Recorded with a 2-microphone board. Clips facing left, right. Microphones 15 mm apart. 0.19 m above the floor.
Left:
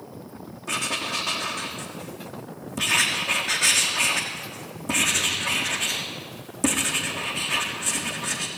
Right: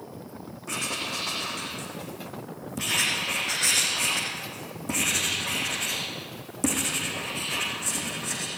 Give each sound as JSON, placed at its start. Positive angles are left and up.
{"t": 0.7, "sound": "writing", "side_deg": 5, "distance_m": 3.5}